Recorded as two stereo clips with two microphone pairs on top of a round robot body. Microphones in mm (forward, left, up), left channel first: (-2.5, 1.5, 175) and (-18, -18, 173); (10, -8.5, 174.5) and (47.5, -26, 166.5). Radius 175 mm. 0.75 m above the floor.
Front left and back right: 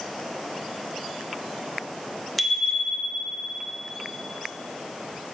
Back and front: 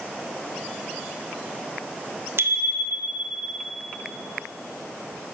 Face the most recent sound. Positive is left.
turn(degrees=-55)